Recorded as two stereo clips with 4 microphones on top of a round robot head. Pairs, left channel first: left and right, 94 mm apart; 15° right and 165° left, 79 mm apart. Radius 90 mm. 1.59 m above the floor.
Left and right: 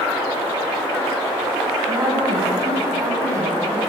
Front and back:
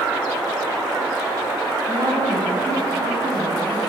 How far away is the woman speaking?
About 9 m.